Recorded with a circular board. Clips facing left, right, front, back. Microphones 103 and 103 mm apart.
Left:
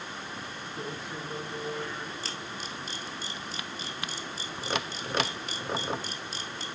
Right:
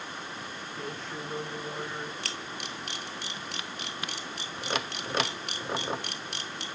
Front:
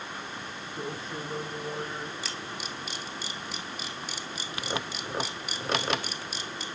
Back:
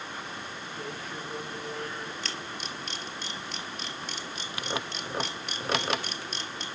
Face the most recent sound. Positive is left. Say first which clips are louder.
# even, even
turn(degrees=-85)